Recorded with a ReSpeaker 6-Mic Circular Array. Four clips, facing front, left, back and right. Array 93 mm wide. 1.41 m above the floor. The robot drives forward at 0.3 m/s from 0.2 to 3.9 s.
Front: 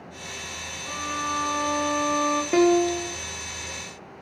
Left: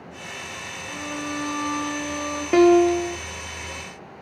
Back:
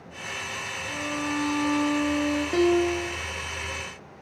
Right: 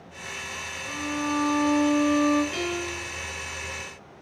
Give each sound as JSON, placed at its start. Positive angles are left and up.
{"t": 0.9, "sound": "a violin", "azimuth_deg": -10, "distance_m": 4.0}
{"t": 2.5, "sound": "a piano", "azimuth_deg": 65, "distance_m": 0.7}